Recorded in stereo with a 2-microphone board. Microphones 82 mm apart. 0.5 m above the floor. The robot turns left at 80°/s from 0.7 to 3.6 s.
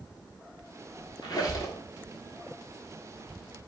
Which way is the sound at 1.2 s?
90° left.